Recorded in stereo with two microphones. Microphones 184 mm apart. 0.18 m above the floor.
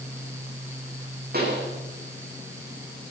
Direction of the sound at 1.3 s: 60° right (ahead or behind).